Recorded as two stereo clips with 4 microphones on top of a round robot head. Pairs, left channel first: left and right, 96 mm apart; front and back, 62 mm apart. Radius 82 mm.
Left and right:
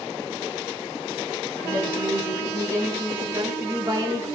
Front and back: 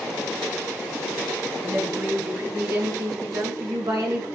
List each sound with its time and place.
1.6 s a woman speaking: 155° right, 7.5 m; by 4.3 s 140° right, 8.5 m